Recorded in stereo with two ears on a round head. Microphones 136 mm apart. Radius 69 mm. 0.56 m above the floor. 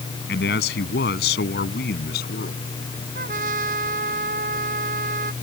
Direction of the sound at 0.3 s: 75° left (ahead or behind).